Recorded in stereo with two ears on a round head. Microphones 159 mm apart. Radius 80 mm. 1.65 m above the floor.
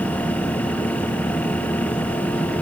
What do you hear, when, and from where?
Only background noise.